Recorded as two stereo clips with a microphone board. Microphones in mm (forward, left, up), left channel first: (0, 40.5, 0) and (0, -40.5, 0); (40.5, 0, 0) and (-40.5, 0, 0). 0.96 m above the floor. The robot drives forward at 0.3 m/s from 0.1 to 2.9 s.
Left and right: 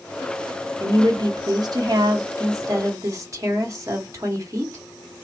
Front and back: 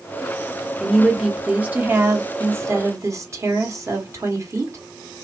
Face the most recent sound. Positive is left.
turn(degrees=-130)